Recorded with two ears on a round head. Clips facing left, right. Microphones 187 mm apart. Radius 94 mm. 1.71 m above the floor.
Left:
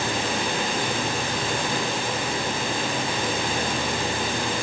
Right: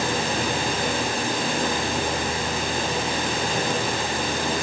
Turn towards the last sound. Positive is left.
No sound to turn to.